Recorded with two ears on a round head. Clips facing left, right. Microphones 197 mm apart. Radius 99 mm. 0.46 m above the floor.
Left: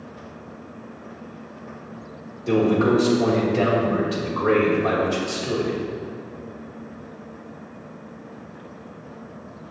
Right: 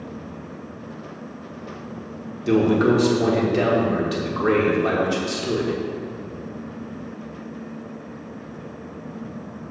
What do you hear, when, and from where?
2.5 s a man speaking: 20° right (ahead or behind), 1.3 m